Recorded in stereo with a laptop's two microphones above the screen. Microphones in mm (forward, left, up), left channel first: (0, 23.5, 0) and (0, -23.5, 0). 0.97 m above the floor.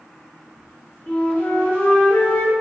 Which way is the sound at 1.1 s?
50° left (ahead or behind).